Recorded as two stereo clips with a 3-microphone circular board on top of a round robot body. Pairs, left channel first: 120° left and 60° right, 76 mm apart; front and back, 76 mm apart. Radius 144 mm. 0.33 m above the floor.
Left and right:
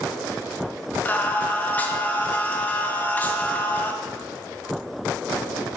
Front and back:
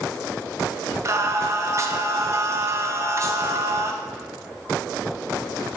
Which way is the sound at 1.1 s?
175° left.